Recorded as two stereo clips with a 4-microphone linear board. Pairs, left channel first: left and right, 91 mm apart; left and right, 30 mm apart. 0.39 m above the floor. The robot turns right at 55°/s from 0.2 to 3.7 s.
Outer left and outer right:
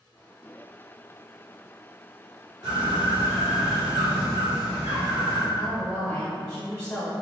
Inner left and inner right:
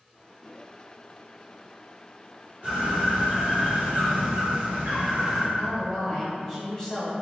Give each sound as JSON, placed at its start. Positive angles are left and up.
{"t": 2.6, "sound": "a bird", "azimuth_deg": -135, "distance_m": 1.9}
{"t": 5.5, "sound": "a woman speaking", "side_deg": 25, "distance_m": 1.0}